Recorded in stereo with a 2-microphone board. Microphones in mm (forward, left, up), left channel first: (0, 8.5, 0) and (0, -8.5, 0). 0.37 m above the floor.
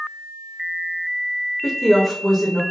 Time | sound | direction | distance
1.6 | a woman speaking | 20° left (ahead or behind) | 0.9 m